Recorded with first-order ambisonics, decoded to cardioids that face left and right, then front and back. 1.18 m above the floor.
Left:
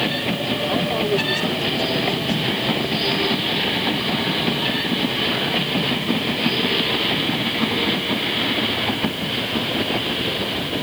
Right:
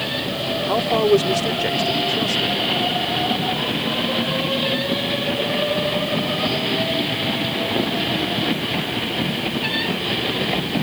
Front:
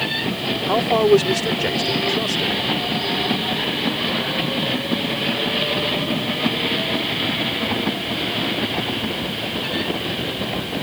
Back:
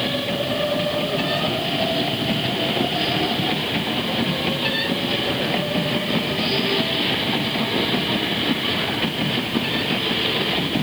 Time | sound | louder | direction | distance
0.7 | a man speaking | right 7 dB, front 7 dB | 25° right | ?